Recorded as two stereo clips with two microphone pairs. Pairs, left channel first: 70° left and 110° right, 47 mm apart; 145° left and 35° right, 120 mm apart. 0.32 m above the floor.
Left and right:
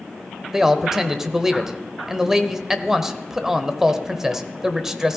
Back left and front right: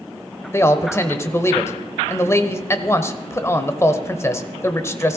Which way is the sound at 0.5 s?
175° right.